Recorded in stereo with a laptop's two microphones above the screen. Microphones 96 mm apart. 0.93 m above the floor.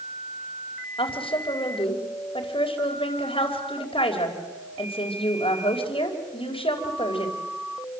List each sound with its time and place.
1.0 s a woman speaking: 70° left (ahead or behind), 4.5 m